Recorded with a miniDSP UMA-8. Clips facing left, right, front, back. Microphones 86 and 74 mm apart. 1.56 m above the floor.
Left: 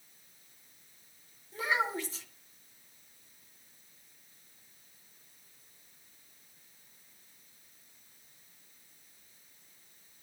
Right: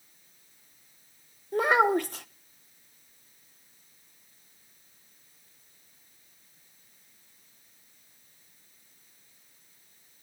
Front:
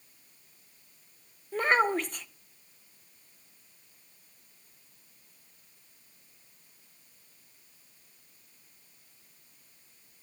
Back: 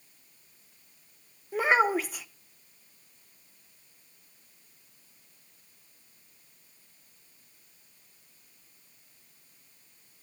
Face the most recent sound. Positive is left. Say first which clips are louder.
# right 10 dB, back 1 dB
turn(degrees=-95)